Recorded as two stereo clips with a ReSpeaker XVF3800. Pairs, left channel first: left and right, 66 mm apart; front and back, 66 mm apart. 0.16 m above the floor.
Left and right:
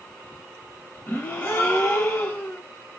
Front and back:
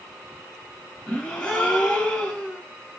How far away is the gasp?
About 1.6 m.